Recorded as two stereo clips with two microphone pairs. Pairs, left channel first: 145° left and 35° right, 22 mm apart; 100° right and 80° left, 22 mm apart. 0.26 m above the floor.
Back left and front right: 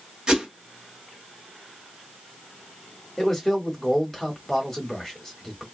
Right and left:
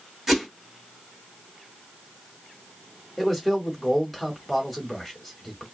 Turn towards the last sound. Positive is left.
turn(degrees=180)